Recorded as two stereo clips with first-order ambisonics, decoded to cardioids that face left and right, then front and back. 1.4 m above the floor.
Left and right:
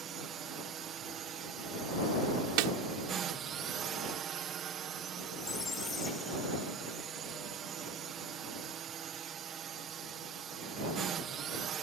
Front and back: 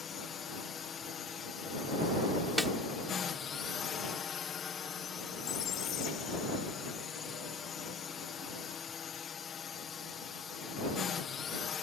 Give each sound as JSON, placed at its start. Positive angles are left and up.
{"t": 0.0, "sound": "a drone", "azimuth_deg": -55}
{"t": 2.6, "sound": "a snare drum", "azimuth_deg": -90}
{"t": 5.4, "sound": "a squeak", "azimuth_deg": 25}